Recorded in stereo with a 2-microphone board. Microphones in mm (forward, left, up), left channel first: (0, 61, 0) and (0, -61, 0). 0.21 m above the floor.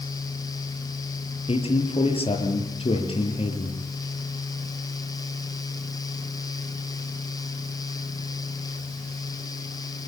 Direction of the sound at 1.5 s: 50° left (ahead or behind).